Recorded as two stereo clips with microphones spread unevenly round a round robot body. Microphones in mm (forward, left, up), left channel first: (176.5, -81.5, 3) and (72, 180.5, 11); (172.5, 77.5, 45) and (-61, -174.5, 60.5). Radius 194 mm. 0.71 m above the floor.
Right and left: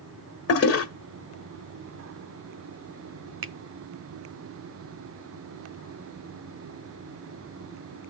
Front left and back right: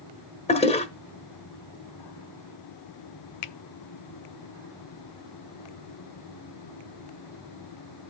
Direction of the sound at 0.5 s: 25° right.